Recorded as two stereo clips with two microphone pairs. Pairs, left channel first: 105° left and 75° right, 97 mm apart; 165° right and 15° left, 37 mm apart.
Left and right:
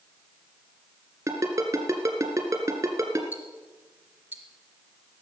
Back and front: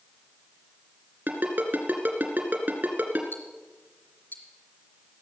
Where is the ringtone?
15° right, 2.5 m.